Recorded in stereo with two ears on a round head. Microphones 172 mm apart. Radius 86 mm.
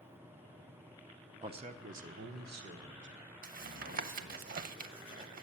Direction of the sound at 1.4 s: 25° right (ahead or behind).